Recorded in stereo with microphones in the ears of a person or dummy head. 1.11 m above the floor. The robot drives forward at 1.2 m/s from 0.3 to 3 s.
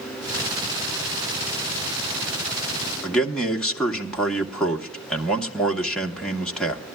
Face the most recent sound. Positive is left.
turn(degrees=0)  # may be behind; listen again after turning